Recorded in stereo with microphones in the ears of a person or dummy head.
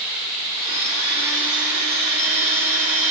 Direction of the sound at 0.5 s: 45° right (ahead or behind).